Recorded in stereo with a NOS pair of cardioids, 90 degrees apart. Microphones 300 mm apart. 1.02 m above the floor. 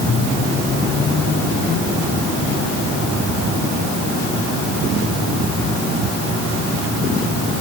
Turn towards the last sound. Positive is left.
No sound to turn to.